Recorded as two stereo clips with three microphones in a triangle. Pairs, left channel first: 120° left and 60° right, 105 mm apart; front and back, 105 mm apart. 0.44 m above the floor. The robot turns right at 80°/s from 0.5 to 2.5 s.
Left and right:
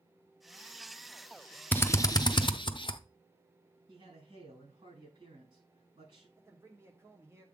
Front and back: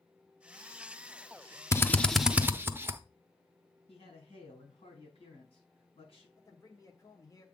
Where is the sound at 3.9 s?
25° right, 5 m.